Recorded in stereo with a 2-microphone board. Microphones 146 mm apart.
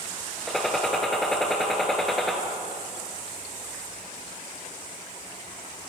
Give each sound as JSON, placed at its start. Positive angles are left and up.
{"t": 0.5, "sound": "a gunshot", "side_deg": 0, "distance_m": 0.8}